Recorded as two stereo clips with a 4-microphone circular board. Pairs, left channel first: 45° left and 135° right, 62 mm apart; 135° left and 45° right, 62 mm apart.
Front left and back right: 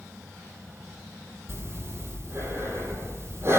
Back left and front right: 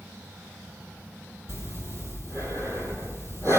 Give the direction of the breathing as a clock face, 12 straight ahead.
3 o'clock.